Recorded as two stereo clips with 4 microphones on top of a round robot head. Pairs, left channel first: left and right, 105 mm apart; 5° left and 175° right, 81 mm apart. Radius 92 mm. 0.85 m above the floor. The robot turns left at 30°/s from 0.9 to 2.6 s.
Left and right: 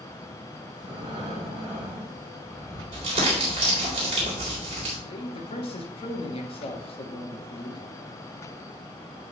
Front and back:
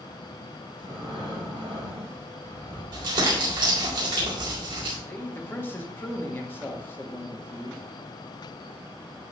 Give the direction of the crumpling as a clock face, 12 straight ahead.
4 o'clock.